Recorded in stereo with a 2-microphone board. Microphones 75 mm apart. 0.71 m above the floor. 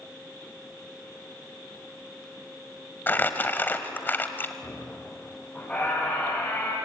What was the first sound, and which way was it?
Crumpling, 25° left (ahead or behind).